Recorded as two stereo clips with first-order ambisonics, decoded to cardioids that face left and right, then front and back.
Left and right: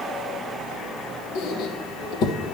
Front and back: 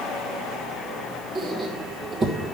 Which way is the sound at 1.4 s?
115° left.